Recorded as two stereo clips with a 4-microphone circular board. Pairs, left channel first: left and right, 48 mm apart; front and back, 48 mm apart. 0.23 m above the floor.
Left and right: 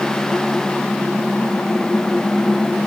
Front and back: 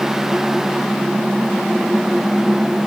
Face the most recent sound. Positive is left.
No sound to turn to.